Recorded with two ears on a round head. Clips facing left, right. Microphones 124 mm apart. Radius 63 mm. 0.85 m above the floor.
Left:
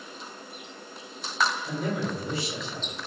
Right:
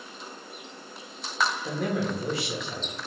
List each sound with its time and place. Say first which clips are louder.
1.6 s a man speaking: right 2 dB; 55° right (ahead or behind), 1.5 m